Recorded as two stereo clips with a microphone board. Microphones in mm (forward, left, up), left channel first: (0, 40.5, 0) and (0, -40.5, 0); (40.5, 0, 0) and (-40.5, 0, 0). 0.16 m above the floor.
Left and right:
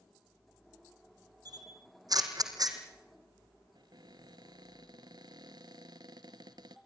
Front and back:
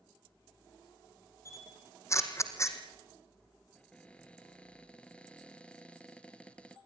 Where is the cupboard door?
75° right, 1.3 m.